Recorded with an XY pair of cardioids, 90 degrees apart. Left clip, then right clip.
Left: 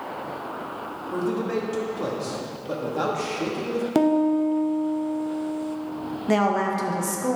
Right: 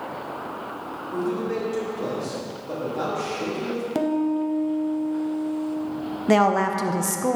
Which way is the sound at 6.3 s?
35° right.